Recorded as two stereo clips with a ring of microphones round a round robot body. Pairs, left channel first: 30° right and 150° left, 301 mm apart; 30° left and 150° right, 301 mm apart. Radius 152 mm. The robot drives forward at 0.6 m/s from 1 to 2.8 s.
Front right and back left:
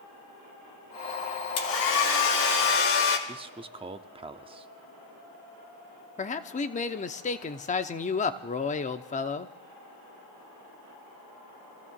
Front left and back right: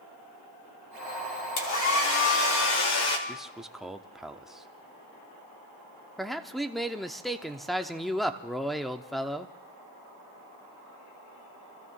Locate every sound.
1.6 s a hair dryer: 5° left, 3 m
3.3 s a man speaking: 125° left, 0.6 m
6.2 s a man speaking: 60° right, 0.8 m